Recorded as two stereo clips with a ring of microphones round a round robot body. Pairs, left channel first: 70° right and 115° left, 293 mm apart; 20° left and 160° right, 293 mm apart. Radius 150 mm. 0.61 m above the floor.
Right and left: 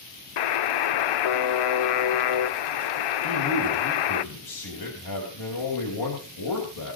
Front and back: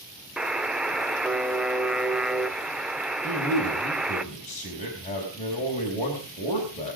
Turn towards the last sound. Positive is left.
turn(degrees=-45)